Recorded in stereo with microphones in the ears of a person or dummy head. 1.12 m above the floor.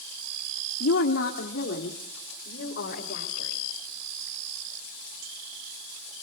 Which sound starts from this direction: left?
A woman speaking, at 0.8 s.